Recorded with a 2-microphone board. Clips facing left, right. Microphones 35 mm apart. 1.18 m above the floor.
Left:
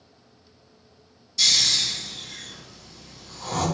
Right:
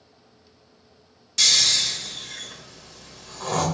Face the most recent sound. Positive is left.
turn(degrees=-60)  # may be behind; listen again after turning